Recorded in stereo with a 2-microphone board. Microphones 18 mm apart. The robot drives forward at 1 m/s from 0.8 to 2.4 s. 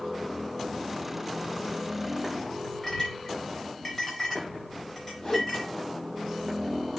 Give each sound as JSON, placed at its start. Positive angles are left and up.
{"t": 2.8, "sound": "a clink", "side_deg": 20, "distance_m": 9.0}
{"t": 5.2, "sound": "a whoosh", "side_deg": 50, "distance_m": 6.0}